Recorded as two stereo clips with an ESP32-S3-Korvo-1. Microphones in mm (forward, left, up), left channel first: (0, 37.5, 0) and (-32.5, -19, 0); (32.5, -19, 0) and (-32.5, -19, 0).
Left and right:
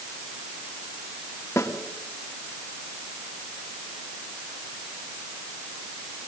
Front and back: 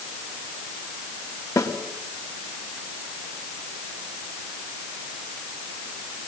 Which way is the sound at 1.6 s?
20° left.